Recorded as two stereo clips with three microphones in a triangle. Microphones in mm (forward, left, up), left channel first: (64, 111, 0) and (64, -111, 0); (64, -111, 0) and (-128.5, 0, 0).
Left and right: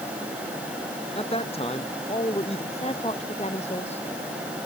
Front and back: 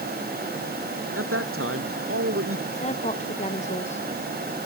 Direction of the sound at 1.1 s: 155° left.